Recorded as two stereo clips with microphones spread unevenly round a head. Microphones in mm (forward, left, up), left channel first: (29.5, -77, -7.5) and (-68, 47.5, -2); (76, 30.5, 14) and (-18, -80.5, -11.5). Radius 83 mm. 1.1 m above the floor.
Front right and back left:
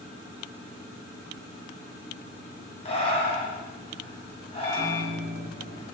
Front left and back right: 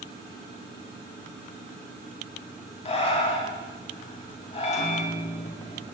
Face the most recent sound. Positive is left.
turn(degrees=5)